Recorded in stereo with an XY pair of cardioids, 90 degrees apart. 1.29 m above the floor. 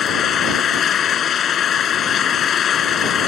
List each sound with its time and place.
0.0 s an engine running: 65° left